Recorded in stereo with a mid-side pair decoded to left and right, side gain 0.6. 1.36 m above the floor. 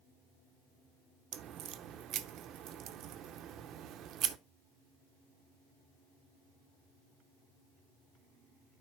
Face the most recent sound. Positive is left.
turn(degrees=-55)